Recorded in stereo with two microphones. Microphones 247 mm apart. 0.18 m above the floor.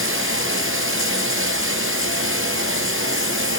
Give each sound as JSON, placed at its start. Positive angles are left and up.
{"t": 0.0, "sound": "running water", "side_deg": -60, "distance_m": 2.0}